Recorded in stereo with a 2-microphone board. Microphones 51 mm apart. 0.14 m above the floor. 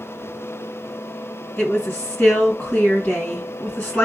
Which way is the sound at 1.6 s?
25° left (ahead or behind).